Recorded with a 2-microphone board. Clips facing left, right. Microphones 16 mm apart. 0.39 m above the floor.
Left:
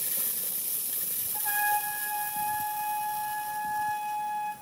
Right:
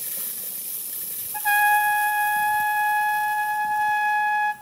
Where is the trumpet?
70° right (ahead or behind), 0.9 m.